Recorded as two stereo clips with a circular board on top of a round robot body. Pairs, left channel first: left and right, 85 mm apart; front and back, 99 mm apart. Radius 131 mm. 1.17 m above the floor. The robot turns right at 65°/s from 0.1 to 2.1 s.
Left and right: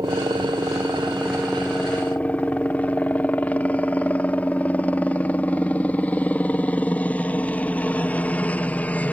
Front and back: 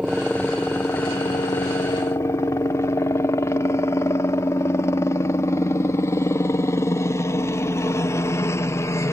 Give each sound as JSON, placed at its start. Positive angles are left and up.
{"t": 0.0, "sound": "a helicopter", "azimuth_deg": -100}